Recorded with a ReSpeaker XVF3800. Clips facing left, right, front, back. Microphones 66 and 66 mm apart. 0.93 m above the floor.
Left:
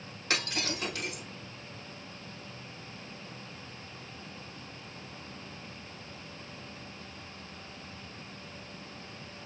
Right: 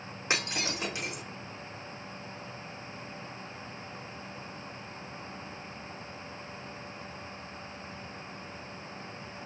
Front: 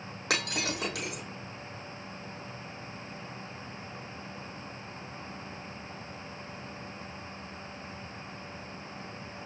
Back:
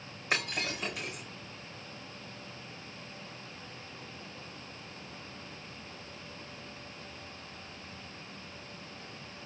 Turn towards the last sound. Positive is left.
turn(degrees=-20)